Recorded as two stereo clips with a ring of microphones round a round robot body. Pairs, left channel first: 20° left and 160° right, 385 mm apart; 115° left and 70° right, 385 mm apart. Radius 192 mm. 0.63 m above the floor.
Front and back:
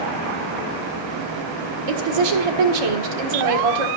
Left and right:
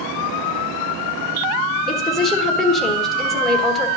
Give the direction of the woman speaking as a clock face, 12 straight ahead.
5 o'clock.